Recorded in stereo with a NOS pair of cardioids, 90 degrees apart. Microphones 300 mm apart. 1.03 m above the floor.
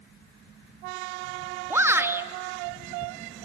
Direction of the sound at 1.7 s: 10° right.